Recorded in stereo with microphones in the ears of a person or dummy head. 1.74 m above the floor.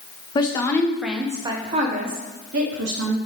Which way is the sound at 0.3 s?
25° left (ahead or behind).